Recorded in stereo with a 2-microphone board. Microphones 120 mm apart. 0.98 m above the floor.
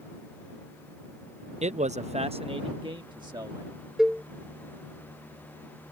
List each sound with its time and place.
1.6 s a man speaking: 65° right (ahead or behind); by 3.7 s 35° right (ahead or behind)
4.0 s a cowbell: 5° right (ahead or behind)